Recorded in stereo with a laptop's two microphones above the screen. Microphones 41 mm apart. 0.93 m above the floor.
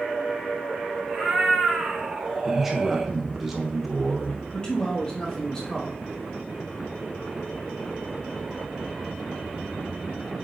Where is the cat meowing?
10° right (ahead or behind), 3 m.